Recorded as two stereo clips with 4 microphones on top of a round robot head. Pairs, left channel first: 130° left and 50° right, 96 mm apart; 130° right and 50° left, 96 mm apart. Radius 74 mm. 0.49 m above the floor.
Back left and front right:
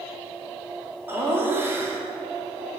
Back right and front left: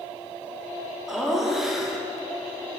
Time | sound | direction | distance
1.1 | laughter | 30° right | 1.2 m